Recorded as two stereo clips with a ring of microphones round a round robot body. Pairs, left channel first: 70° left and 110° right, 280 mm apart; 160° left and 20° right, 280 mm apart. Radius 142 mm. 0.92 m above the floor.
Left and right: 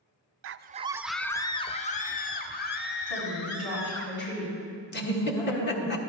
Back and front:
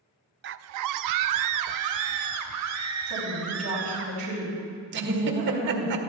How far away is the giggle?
About 1.6 m.